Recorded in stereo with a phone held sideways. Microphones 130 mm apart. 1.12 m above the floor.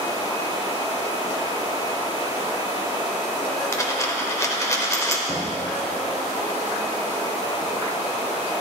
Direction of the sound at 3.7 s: 25° left (ahead or behind).